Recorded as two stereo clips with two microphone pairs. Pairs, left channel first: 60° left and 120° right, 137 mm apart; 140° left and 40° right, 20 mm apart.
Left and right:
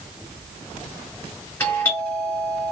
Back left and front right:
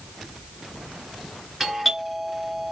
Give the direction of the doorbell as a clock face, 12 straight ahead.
11 o'clock.